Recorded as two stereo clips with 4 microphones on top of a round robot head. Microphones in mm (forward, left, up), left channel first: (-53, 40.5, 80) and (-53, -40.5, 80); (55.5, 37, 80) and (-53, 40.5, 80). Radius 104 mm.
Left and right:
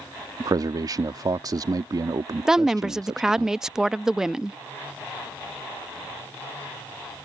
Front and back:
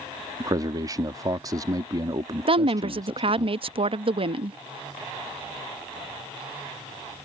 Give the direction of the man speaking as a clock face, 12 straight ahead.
4 o'clock.